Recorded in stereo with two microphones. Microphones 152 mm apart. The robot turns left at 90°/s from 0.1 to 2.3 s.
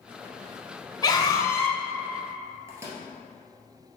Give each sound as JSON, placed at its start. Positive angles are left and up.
{"t": 1.0, "sound": "a scream", "side_deg": 25, "distance_m": 1.1}
{"t": 2.7, "sound": "a microwave", "side_deg": -20, "distance_m": 2.0}